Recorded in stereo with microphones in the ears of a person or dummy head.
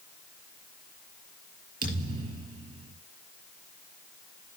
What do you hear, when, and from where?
1.8 s a thud: 25° right (ahead or behind), 5.5 m